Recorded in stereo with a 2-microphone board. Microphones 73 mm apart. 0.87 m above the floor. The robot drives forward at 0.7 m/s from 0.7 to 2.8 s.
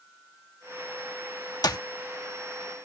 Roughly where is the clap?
Left.